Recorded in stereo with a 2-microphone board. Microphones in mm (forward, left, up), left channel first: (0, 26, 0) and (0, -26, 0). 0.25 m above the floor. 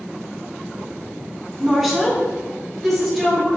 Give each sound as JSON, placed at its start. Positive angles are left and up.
{"t": 1.6, "sound": "a woman speaking", "side_deg": -5, "distance_m": 2.0}